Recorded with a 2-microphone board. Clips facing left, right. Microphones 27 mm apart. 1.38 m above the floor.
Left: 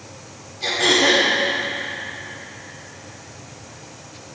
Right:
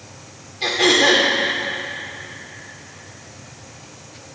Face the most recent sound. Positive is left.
turn(degrees=-45)  # may be behind; listen again after turning